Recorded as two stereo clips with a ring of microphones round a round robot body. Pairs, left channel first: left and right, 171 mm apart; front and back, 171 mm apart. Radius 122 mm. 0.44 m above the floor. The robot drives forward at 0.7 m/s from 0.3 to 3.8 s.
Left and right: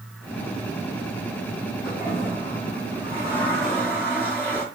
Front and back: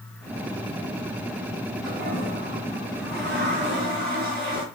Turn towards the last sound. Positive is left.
turn(degrees=-170)